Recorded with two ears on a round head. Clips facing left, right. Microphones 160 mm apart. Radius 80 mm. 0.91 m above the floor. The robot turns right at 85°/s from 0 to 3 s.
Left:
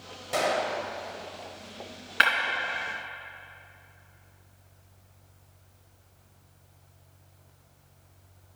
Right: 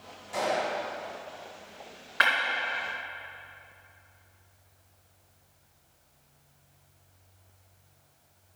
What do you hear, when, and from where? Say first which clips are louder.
0.3 s a gunshot: left 2 dB; 65° left, 1.2 m; by 0.8 s 105° left, 1.2 m
2.2 s breaking glass: left 1 dB; 35° left (ahead or behind), 2 m; by 2.3 s 40° left (ahead or behind), 2 m